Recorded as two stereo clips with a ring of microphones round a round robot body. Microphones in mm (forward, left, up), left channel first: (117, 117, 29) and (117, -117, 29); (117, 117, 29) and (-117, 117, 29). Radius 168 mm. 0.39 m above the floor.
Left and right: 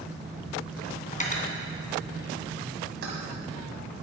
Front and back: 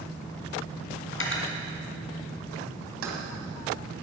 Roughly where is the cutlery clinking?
Ahead left.